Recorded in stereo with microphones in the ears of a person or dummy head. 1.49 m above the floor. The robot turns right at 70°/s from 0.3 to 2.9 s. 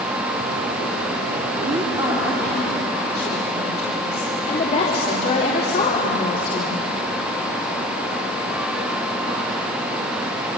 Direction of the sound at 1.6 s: 50° right.